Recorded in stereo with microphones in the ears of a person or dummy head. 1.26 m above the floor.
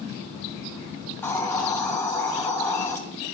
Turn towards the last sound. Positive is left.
turn(degrees=5)  # may be behind; listen again after turning